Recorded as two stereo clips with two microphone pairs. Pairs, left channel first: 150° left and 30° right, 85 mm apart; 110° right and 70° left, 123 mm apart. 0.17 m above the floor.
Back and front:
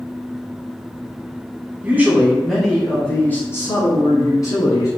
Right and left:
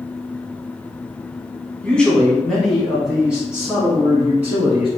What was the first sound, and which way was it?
A man speaking, 35° right.